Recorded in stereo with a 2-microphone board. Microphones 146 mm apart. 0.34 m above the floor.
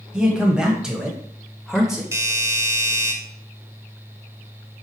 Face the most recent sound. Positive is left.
turn(degrees=-20)  # may be behind; listen again after turning